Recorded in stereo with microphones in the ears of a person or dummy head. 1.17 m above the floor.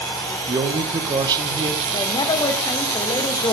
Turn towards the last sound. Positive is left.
turn(degrees=20)  # may be behind; listen again after turning